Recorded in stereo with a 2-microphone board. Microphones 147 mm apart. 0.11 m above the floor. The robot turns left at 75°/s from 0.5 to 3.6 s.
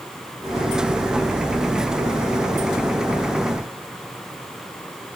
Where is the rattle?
No rattle in this recording.